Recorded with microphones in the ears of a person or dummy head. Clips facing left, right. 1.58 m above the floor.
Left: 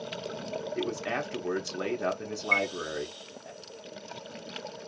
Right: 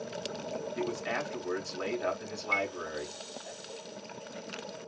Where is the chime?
35° left (ahead or behind), 1.3 m.